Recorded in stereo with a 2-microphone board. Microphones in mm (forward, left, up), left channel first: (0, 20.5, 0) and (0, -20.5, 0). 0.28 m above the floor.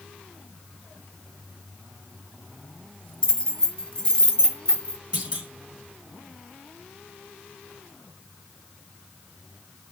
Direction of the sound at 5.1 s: 25° right (ahead or behind).